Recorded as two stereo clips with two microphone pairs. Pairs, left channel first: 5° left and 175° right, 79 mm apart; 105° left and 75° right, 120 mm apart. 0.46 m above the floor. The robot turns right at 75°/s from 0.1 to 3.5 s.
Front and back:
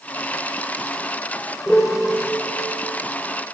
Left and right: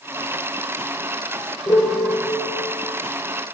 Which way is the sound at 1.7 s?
75° left.